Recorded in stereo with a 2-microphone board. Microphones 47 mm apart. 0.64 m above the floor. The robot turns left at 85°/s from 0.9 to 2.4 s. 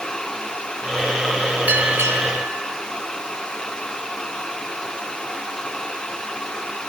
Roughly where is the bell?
Ahead right.